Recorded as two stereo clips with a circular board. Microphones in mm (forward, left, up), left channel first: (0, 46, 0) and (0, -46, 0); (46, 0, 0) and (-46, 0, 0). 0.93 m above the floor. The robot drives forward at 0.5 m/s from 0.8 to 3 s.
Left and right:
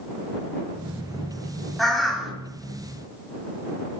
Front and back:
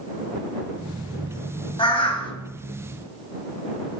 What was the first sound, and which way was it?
A bird, straight ahead.